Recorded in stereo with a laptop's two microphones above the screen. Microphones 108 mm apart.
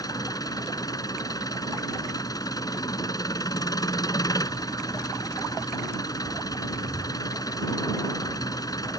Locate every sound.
0.0 s an engine running: 35° left (ahead or behind)